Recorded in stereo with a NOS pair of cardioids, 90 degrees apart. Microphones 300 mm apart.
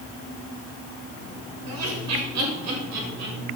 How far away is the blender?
No blender in this recording.